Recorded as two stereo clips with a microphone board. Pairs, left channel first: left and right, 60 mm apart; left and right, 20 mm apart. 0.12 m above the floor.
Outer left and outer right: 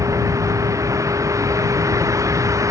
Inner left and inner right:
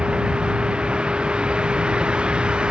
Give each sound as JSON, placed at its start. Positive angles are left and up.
{"t": 0.0, "sound": "a vehicle", "side_deg": -65}